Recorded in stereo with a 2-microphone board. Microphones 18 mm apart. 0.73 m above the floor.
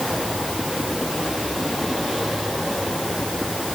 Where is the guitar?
I don't hear a guitar.